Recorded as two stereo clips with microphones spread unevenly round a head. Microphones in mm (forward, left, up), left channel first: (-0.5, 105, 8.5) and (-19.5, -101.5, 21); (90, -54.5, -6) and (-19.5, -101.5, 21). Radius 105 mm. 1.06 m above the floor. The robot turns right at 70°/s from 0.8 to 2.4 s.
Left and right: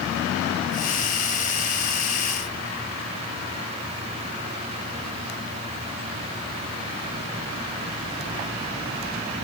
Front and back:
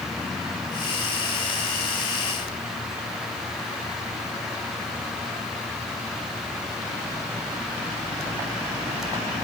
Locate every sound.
Only background noise.